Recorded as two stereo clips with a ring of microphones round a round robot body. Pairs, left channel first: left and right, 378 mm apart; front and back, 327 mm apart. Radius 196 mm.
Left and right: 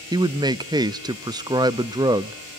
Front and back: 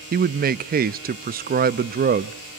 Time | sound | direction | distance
0.1 | a man speaking | 160° right | 0.6 m